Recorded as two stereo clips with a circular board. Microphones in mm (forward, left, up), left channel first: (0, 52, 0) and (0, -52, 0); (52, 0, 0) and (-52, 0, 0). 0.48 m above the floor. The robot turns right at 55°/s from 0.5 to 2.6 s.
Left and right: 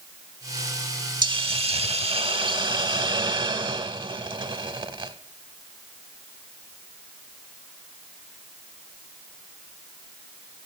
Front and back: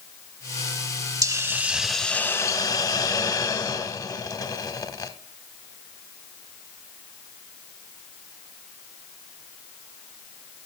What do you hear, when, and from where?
1.2 s a hiss: 130° right, 0.6 m; by 5.1 s 55° right, 0.6 m